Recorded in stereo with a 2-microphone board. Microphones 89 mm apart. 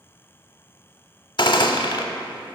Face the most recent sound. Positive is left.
turn(degrees=60)  # may be behind; listen again after turning